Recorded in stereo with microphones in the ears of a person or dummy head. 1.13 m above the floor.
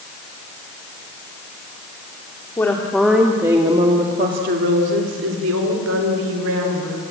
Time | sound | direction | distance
2.6 | a woman speaking | 15° left (ahead or behind) | 2.5 m